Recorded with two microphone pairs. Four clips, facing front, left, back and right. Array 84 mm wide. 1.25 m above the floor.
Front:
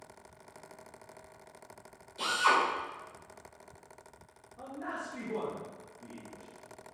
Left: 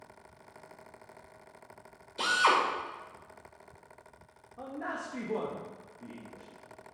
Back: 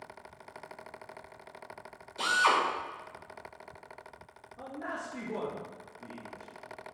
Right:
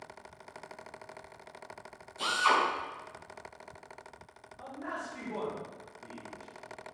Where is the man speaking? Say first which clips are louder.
Left 2 dB, back 1 dB; 95° left, 2 m.